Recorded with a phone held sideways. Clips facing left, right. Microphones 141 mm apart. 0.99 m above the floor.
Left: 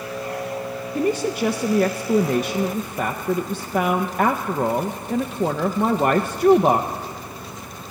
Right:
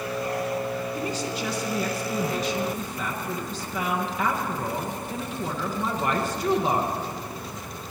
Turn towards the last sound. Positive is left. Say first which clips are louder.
# left 8 dB
turn(degrees=55)  # may be behind; listen again after turning